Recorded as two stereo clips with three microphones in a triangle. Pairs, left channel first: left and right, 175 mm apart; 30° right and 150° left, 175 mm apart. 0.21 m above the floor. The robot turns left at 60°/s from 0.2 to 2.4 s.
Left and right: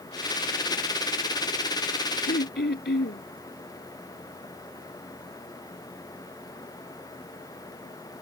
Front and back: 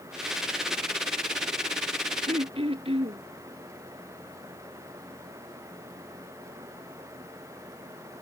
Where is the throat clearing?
105° left; by 3.2 s 95° left.